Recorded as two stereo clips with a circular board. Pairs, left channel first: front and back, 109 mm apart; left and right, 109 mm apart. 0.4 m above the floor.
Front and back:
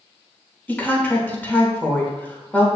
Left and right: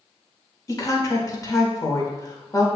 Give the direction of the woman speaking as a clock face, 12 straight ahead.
10 o'clock.